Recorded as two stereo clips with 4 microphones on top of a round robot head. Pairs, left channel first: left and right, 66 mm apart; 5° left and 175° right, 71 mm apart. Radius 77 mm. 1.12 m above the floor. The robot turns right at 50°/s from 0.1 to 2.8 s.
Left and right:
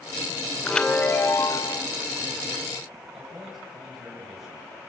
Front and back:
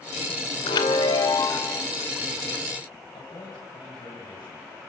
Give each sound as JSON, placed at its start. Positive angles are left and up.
{"t": 0.7, "sound": "a chime", "azimuth_deg": 5, "distance_m": 2.0}
{"t": 3.1, "sound": "a man speaking", "azimuth_deg": -5, "distance_m": 8.0}